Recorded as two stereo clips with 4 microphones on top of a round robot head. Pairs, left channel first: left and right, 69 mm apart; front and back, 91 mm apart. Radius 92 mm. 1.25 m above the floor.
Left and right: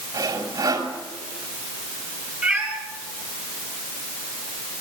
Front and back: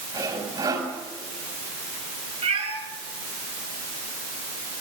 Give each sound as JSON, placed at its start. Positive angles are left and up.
{"t": 0.1, "sound": "sawing", "azimuth_deg": -125, "distance_m": 4.5}
{"t": 2.4, "sound": "a cat meowing", "azimuth_deg": -170, "distance_m": 9.0}